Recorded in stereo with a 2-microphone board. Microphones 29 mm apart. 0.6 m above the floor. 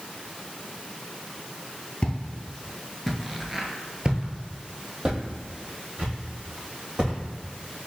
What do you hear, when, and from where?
2.0 s footsteps: 30° left (ahead or behind), 0.7 m; by 7.2 s 45° right (ahead or behind), 2 m